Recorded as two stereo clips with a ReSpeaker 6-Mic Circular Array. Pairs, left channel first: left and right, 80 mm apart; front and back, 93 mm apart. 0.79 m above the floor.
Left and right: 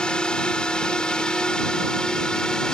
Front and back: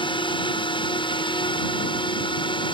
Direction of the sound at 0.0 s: 10° left.